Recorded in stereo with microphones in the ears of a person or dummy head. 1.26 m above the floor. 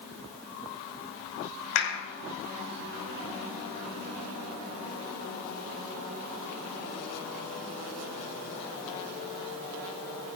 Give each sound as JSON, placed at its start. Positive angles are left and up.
{"t": 1.8, "sound": "a clap", "side_deg": 85, "distance_m": 5.5}